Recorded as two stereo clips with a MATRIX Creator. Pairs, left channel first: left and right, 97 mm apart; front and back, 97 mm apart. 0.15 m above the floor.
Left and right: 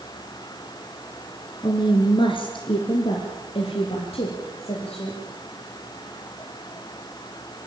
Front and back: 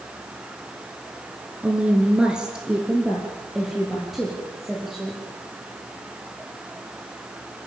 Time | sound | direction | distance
1.6 | a woman speaking | 105° left | 1.8 m